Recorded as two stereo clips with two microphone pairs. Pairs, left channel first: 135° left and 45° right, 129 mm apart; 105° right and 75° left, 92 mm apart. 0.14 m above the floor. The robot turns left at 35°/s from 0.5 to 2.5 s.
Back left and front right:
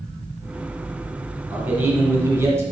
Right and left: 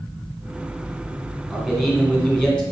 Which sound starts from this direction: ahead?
A man speaking, at 1.5 s.